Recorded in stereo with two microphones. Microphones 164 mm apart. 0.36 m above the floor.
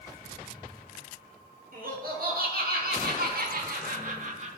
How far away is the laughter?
About 5 m.